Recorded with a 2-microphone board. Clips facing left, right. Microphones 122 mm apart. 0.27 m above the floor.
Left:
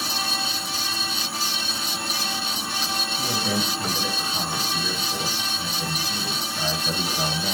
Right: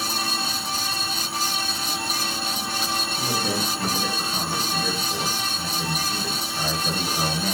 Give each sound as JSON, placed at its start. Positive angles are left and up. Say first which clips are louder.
{"t": 3.2, "sound": "a man speaking", "louder": "left 1 dB", "side_deg": -50, "distance_m": 3.5}